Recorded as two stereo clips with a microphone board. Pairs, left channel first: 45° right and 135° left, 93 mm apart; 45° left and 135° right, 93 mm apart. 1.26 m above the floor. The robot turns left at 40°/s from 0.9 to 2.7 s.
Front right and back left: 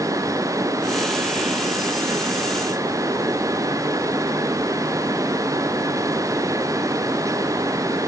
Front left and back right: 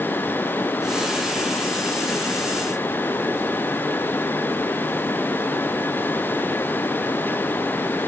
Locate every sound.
Only background noise.